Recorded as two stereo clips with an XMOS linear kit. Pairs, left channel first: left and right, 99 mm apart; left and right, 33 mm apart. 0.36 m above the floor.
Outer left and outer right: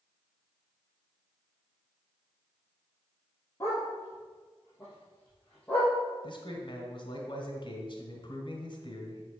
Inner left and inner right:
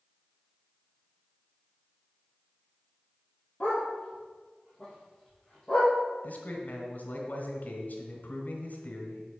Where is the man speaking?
50° left (ahead or behind), 1.6 m.